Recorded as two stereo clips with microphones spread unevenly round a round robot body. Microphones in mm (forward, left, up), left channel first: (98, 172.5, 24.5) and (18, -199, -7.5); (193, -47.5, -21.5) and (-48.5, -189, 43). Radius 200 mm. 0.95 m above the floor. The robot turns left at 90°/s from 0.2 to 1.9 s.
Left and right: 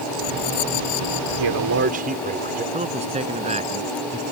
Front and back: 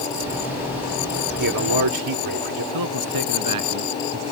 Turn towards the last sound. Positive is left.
turn(degrees=180)